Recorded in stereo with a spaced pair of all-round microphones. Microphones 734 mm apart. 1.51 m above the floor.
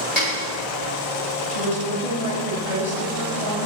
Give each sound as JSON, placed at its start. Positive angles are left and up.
{"t": 0.2, "sound": "a snare drum", "side_deg": 65, "distance_m": 6.5}
{"t": 1.5, "sound": "a woman speaking", "side_deg": 50, "distance_m": 7.0}